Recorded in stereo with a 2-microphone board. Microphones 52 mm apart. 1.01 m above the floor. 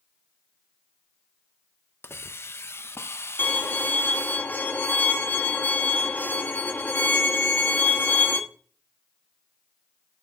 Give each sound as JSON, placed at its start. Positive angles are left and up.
{"t": 2.0, "sound": "a hiss", "side_deg": 50, "distance_m": 0.5}
{"t": 3.4, "sound": "a violin", "side_deg": 35, "distance_m": 1.5}